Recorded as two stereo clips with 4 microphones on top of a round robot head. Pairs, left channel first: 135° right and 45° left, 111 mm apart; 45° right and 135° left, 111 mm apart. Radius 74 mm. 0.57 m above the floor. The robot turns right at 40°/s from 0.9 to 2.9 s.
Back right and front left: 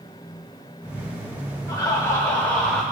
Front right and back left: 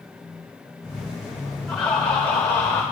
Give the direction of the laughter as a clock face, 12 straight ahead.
4 o'clock.